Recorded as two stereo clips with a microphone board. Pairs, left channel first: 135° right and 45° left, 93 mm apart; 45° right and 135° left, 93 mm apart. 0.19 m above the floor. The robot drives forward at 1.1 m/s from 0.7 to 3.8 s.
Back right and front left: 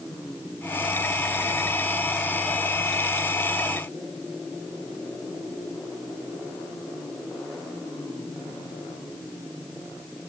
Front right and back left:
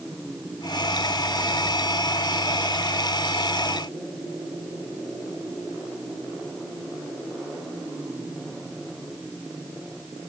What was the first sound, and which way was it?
Only background noise.